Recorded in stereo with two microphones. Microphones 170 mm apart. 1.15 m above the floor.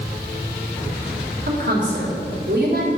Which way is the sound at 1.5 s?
70° right (ahead or behind).